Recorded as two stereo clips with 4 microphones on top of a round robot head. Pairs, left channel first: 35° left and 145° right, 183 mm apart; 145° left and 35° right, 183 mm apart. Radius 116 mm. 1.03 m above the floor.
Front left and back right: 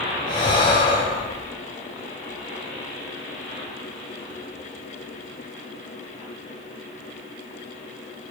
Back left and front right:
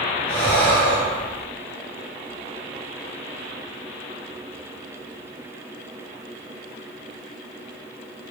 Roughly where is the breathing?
Left.